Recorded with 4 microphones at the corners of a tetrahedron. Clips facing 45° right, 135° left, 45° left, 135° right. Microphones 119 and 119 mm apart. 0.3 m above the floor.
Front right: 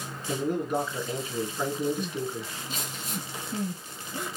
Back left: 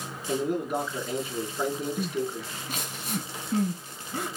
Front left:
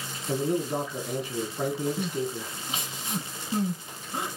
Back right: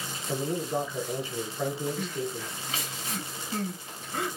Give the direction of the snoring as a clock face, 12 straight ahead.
I don't hear snoring.